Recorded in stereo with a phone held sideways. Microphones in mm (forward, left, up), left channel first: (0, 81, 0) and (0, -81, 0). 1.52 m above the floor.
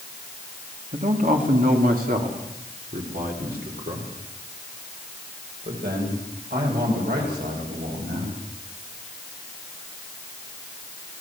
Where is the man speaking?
50° right (ahead or behind), 3 m; by 8.4 s 85° right, 10 m.